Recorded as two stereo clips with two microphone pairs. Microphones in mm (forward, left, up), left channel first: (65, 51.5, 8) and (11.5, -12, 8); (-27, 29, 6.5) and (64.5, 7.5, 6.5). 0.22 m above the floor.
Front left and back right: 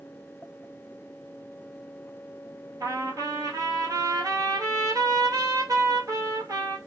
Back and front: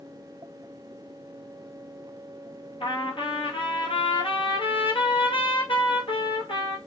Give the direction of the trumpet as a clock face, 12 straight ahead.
6 o'clock.